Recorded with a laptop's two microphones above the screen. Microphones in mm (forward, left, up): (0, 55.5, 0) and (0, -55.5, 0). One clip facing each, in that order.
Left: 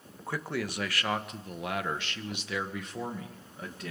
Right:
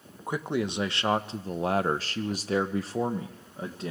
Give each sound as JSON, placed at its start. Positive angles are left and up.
{"t": 0.3, "sound": "a man speaking", "side_deg": -20, "distance_m": 1.2}